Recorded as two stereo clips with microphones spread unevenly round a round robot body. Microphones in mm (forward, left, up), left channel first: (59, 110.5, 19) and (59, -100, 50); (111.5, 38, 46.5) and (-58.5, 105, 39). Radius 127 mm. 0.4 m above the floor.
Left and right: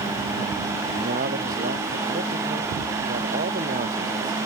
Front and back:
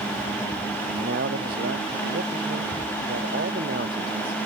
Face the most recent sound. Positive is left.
turn(degrees=-150)